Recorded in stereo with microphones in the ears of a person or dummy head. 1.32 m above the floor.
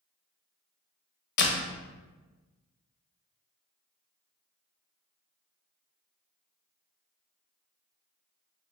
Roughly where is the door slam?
Left.